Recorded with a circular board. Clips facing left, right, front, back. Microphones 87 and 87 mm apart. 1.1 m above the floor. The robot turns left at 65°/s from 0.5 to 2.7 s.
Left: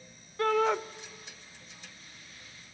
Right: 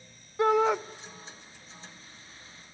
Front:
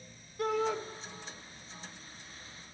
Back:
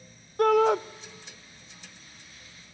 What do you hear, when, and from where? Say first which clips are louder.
0.4 s a shout: right 3 dB, back 11 dB; 160° right, 1.0 m; by 0.8 s straight behind, 1.0 m